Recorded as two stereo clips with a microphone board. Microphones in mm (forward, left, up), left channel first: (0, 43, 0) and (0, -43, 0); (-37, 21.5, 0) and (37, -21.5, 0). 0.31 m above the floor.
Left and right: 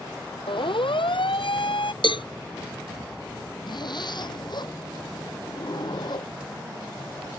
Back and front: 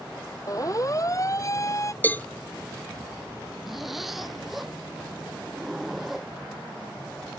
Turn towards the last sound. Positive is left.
turn(degrees=60)